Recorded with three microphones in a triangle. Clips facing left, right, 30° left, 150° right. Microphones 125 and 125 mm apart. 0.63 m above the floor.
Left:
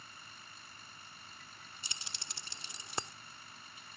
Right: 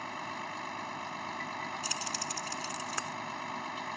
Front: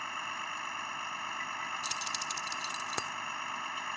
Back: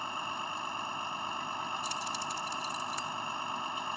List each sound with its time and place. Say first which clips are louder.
0.0 s a vehicle: right 18 dB, back 3 dB; 80° right
1.8 s keys jangling: right 15 dB, back 3 dB; 25° left